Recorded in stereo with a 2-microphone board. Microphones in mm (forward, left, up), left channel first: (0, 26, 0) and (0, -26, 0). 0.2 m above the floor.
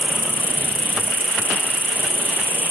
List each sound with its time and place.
0.0 s an insect: 40° right (ahead or behind)